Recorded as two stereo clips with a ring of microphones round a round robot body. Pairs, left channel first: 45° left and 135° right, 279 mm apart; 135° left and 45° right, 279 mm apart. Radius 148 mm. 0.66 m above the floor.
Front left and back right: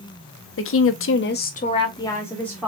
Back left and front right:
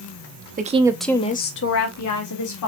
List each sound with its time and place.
0.6 s a woman speaking: 10° left, 0.9 m; by 2.7 s 130° left, 1.7 m